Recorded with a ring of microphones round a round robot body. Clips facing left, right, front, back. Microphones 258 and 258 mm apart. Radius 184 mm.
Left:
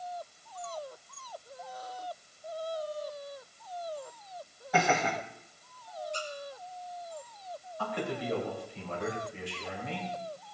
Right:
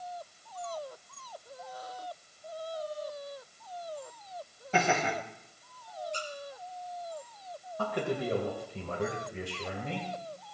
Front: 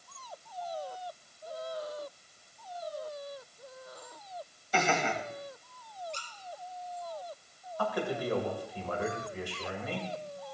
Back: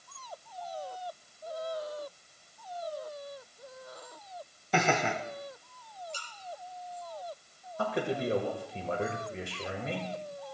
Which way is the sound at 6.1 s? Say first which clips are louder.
Left 2 dB, front 1 dB; 95° right.